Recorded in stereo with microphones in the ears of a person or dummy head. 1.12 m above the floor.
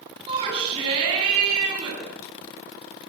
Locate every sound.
0.3 s a shout: 25° right (ahead or behind), 9.5 m